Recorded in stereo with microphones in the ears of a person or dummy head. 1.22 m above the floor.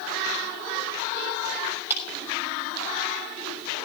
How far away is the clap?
About 6 m.